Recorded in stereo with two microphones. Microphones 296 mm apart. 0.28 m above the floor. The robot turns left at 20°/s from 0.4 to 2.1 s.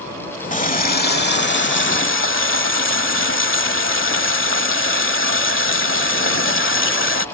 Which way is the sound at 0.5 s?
145° left.